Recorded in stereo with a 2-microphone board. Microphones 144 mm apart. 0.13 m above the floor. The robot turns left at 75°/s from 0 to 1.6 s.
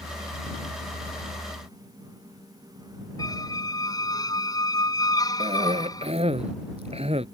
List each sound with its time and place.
3.2 s a squeak: 25° left (ahead or behind)
5.4 s a cough: 50° right (ahead or behind)